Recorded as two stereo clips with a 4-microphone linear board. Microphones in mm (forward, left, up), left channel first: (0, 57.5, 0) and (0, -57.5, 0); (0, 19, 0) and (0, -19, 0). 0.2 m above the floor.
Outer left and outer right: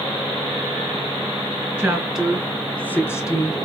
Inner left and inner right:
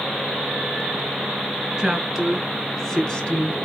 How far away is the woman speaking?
About 2.5 m.